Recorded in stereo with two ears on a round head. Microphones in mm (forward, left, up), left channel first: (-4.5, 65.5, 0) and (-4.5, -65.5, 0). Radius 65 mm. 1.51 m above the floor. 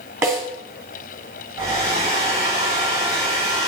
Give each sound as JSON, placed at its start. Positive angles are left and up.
{"t": 0.2, "sound": "a snare drum", "side_deg": -20, "distance_m": 2.5}
{"t": 1.6, "sound": "a hair dryer", "side_deg": -40, "distance_m": 6.0}